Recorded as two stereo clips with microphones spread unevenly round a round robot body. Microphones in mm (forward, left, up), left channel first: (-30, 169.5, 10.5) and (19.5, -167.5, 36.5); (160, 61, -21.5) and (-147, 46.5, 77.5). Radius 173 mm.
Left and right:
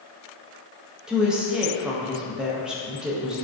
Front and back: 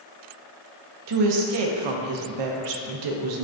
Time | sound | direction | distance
1.1 | a woman speaking | 170° right | 0.5 m